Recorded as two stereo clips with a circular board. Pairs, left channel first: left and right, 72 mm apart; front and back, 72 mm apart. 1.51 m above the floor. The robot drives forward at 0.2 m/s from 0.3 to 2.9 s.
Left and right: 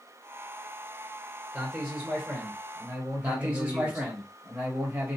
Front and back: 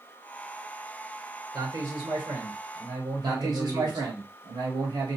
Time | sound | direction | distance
1.5 | a man speaking | 170° right | 1.1 m
3.2 | a man speaking | 165° right | 1.1 m